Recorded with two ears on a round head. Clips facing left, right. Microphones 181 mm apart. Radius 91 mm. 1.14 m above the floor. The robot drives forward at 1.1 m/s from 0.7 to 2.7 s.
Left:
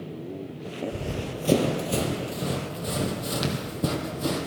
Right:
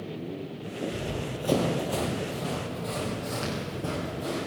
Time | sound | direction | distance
0.9 | running footsteps | 20° left (ahead or behind) | 1.4 m